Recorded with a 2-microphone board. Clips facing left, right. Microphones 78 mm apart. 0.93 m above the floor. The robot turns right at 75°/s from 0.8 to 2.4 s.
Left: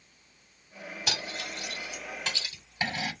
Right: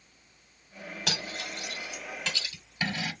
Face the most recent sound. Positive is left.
turn(degrees=30)  # may be behind; listen again after turning